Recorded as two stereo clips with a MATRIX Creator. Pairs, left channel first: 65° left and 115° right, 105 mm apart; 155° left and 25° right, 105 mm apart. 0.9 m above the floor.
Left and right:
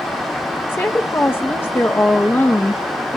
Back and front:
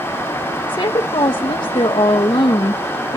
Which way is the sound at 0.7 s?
135° left.